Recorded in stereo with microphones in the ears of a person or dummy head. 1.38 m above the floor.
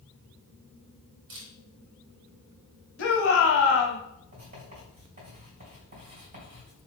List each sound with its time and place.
1.3 s a camera shutter: 55° right (ahead or behind), 1.1 m
3.0 s a shout: 65° left (ahead or behind), 0.8 m
4.3 s writing: 40° right (ahead or behind), 1.9 m